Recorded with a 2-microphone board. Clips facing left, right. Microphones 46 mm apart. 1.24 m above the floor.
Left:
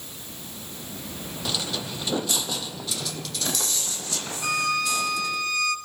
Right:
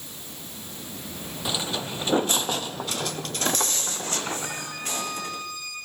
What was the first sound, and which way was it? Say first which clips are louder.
Footsteps: right 1 dB; 20° right (ahead or behind).